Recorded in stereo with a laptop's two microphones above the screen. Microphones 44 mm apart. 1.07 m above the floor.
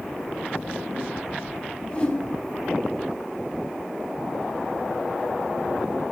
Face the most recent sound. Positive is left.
turn(degrees=25)  # may be behind; listen again after turning